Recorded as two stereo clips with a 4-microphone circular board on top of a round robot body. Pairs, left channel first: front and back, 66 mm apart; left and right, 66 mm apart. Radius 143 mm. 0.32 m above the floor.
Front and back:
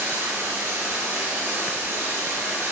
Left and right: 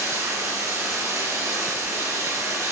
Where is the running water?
130° right, 5.5 m.